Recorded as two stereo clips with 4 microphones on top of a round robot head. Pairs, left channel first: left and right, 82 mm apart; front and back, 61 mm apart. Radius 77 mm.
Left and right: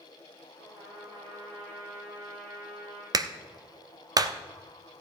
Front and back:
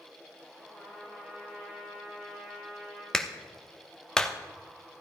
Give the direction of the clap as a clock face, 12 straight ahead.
3 o'clock.